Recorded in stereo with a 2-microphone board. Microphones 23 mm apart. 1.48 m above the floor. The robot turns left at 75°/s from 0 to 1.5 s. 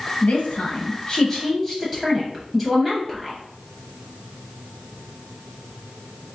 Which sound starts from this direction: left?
A woman speaking, at 0.2 s.